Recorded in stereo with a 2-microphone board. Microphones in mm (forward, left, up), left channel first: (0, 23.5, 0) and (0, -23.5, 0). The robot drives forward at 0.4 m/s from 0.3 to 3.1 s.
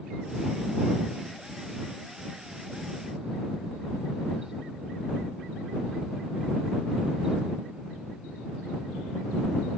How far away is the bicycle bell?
I don't hear a bicycle bell.